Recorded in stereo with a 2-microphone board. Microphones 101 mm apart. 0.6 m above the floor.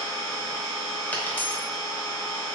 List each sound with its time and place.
0.0 s an engine running: 35° left (ahead or behind), 1.6 m
1.1 s a dropped coin: 20° left (ahead or behind), 1.0 m